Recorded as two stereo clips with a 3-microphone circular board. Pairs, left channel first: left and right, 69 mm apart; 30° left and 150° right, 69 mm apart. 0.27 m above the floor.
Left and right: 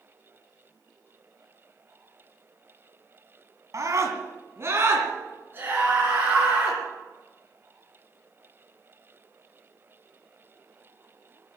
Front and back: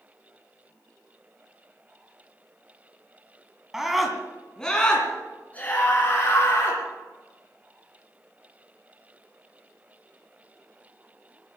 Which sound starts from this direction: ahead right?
A scream, at 3.7 s.